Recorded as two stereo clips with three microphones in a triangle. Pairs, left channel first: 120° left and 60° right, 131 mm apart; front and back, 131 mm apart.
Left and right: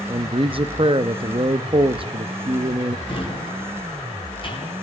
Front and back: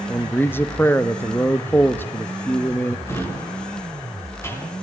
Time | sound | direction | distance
0.1 | a man speaking | 65° right | 1.1 m
3.1 | a drawer | 70° left | 6 m